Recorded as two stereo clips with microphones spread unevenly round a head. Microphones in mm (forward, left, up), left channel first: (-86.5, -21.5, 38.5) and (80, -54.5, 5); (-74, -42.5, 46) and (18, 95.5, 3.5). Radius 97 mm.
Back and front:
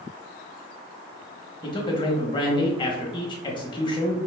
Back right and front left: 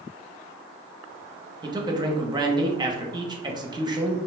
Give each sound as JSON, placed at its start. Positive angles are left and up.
{"t": 1.6, "sound": "a man speaking", "azimuth_deg": 100, "distance_m": 0.9}